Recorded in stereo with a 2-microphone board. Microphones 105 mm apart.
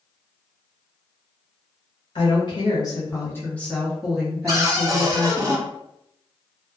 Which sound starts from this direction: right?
A cupboard door, at 4.5 s.